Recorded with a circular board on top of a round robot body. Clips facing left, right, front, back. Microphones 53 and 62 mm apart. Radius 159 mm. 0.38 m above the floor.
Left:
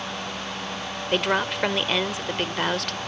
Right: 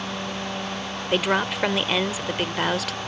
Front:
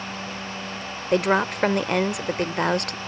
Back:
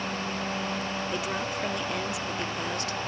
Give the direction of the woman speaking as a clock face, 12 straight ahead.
12 o'clock.